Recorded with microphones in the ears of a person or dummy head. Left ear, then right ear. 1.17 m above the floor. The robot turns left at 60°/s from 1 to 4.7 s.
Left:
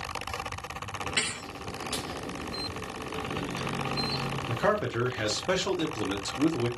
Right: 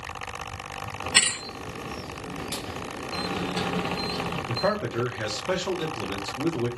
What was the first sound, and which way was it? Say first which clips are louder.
A thud: right 9 dB; 50° right (ahead or behind).